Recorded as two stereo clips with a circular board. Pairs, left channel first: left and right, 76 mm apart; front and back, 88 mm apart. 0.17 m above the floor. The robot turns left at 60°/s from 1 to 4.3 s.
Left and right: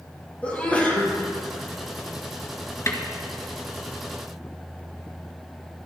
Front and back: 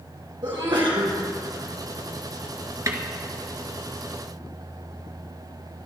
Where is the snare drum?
135° left, 1.8 m; by 3.0 s 125° left, 1.8 m.